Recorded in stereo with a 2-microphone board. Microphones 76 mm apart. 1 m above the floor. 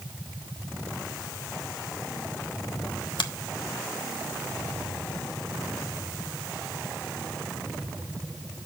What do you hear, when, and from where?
3.2 s a finger snap: 75° left (ahead or behind), 1.1 m